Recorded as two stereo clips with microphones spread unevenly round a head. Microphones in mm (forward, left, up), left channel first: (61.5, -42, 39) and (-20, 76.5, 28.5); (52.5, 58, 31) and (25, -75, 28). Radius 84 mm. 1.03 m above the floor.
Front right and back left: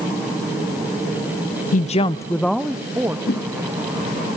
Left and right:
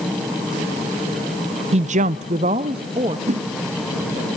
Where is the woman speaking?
70° right, 0.5 m; by 3.2 s 160° right, 1.2 m.